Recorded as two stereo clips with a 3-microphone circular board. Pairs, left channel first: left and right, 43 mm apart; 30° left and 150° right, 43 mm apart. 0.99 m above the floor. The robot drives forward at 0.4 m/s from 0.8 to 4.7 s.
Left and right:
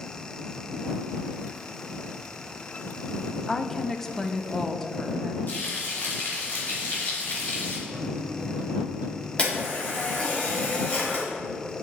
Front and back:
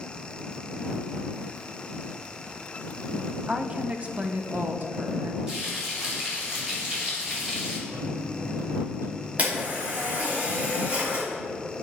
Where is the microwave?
135° right, 1.0 m.